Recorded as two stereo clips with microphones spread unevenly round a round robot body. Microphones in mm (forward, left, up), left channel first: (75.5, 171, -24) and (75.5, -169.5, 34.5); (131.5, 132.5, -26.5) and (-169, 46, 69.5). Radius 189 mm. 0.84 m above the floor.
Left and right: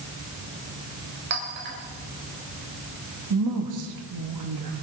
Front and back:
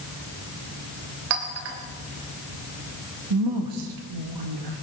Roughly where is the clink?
Behind right.